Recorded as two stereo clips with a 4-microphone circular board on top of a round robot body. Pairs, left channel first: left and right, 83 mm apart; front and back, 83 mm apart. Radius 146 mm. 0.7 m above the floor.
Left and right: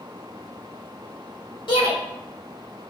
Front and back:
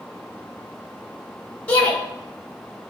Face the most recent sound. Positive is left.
turn(degrees=75)